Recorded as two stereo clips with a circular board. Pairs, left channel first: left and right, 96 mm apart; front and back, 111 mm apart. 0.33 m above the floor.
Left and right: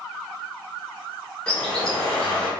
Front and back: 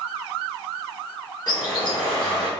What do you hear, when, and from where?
1.5 s a bird: 15° left, 1.2 m